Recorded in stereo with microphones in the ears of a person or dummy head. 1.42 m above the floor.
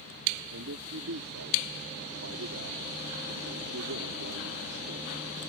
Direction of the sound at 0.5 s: 85° right.